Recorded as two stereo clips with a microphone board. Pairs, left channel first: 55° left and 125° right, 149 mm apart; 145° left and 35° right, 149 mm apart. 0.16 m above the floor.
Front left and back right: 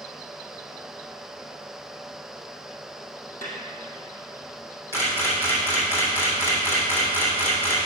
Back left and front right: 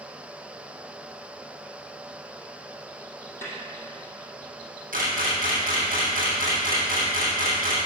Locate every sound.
3.4 s a snare drum: 75° left, 3 m
4.9 s a camera shutter: 20° right, 3 m